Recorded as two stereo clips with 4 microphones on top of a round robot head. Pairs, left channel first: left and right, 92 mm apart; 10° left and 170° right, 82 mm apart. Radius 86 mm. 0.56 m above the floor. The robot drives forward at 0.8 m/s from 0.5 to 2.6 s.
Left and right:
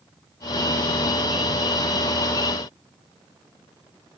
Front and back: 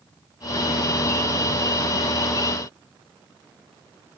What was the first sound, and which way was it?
Only background noise.